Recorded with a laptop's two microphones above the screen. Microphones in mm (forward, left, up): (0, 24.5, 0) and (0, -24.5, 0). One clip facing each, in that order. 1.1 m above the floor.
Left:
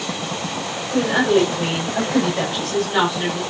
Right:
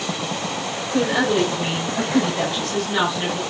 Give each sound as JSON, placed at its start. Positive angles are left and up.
{"t": 0.9, "sound": "a woman speaking", "side_deg": 35, "distance_m": 5.5}